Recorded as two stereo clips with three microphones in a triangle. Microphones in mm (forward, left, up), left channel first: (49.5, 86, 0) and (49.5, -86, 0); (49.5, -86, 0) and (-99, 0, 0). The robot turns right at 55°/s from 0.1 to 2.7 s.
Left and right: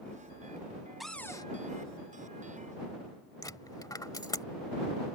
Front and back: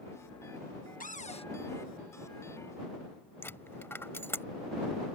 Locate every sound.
1.0 s a cupboard door: straight ahead; by 1.5 s 25° left
3.4 s a dropped coin: 35° left